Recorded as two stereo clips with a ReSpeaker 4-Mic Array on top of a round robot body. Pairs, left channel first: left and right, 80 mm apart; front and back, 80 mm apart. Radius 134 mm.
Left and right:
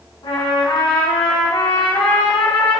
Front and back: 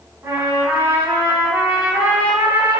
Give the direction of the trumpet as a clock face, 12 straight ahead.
8 o'clock.